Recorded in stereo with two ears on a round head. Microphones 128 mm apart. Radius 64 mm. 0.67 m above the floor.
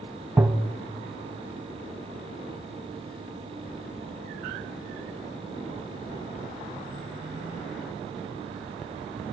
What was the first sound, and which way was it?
Tapping, 10° right (ahead or behind).